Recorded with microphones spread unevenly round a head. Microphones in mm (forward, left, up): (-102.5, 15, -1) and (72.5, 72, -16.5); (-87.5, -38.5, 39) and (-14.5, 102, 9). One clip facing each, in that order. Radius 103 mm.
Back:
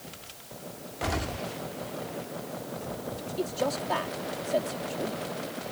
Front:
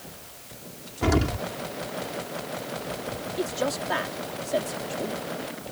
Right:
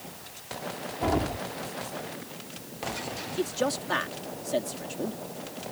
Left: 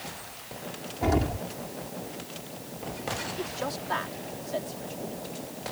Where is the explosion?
25° right.